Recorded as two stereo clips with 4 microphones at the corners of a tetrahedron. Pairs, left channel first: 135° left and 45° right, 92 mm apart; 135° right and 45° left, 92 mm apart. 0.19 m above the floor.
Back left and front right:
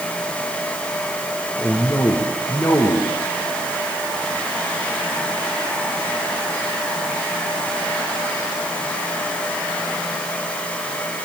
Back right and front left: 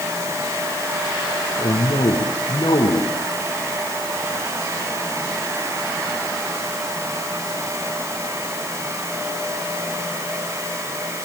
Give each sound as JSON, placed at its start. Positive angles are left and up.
{"t": 1.6, "sound": "a man speaking", "azimuth_deg": -170, "distance_m": 5.0}